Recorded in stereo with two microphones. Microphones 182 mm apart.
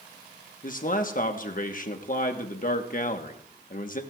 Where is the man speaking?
45° left (ahead or behind), 1.2 m.